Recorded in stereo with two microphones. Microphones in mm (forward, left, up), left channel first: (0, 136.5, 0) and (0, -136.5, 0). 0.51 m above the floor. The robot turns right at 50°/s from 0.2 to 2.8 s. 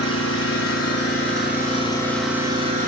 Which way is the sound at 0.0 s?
80° left.